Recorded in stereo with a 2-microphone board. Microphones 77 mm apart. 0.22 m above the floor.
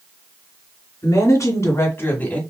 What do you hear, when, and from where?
1.0 s a woman speaking: 50° left (ahead or behind), 2.5 m; by 2.4 s 15° left (ahead or behind), 1.4 m